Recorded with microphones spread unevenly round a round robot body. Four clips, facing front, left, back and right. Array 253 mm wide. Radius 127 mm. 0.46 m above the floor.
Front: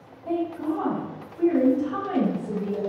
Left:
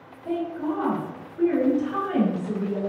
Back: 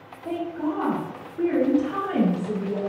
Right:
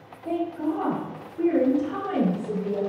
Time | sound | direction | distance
0.2 | a woman speaking | 160° right | 1.3 m